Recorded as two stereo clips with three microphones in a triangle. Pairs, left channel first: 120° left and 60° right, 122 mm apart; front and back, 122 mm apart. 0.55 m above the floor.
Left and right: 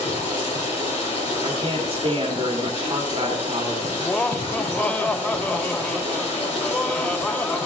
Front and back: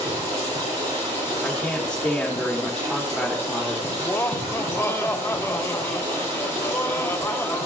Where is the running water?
150° left, 5 m.